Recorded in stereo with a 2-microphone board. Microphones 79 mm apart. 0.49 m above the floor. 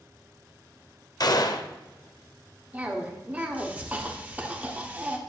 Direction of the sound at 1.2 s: 55° left (ahead or behind).